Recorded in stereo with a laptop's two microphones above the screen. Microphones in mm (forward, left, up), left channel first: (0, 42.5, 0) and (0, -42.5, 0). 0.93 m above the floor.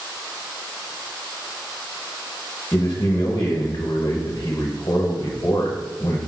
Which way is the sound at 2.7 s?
40° left (ahead or behind).